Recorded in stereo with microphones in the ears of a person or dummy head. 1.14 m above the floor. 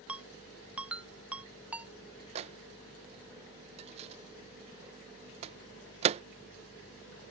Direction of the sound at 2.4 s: 35° right (ahead or behind).